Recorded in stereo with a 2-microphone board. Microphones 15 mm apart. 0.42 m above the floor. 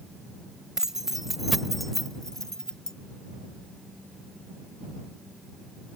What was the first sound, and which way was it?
Keys jangling, 35° right (ahead or behind).